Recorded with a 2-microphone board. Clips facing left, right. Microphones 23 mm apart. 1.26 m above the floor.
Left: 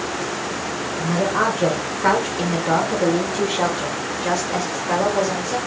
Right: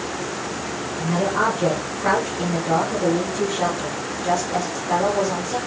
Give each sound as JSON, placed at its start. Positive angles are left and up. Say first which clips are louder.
{"t": 1.0, "sound": "a woman speaking", "louder": "left 1 dB", "side_deg": 20, "distance_m": 1.0}